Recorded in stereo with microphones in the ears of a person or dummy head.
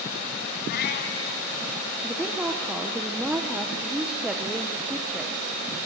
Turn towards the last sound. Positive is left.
turn(degrees=-5)  # may be behind; listen again after turning